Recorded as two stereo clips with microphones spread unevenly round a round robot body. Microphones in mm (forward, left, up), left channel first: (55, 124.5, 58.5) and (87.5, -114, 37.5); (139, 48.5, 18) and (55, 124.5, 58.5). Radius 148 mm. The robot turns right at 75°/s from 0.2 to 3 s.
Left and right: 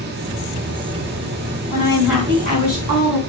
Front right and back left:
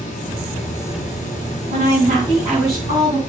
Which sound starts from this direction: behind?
A woman speaking, at 1.7 s.